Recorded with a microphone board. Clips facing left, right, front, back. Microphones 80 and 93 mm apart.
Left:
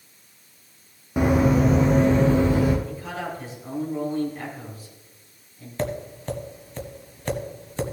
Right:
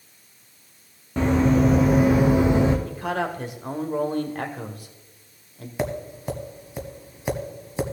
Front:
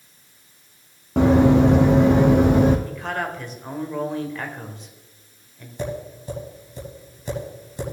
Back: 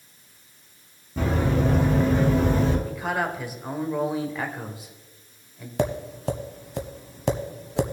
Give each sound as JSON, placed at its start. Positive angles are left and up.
{"t": 1.2, "sound": "running footsteps", "azimuth_deg": 10, "distance_m": 1.6}
{"t": 2.9, "sound": "a man speaking", "azimuth_deg": -100, "distance_m": 1.6}
{"t": 5.8, "sound": "tapping", "azimuth_deg": -170, "distance_m": 1.2}